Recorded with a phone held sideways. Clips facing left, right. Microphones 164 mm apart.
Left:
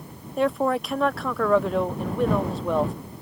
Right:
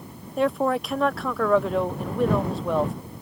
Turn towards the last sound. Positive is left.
turn(degrees=0)  # may be behind; listen again after turning